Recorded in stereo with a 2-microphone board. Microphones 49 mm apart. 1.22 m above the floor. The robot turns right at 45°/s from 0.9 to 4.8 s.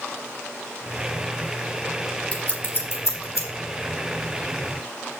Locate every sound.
2.3 s scissors: 25° left (ahead or behind), 2.5 m; by 3.5 s 75° left (ahead or behind), 2.5 m